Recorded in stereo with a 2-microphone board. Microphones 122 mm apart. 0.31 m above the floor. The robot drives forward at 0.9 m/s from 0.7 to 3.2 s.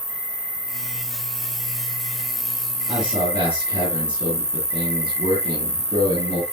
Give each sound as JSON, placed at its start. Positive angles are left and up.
{"t": 0.0, "sound": "an insect", "side_deg": -10, "distance_m": 4.0}
{"t": 2.9, "sound": "a man speaking", "side_deg": -35, "distance_m": 7.0}